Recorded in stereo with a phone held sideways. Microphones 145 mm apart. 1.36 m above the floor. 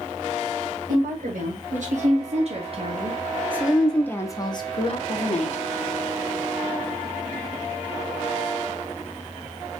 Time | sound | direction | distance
0.9 | a woman speaking | 70° right (ahead or behind) | 1.7 m